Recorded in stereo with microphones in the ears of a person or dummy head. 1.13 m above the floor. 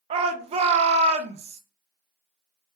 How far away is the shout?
About 0.8 m.